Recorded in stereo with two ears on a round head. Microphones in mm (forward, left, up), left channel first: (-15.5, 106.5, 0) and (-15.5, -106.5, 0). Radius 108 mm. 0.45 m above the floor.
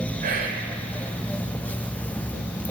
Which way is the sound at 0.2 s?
40° right (ahead or behind).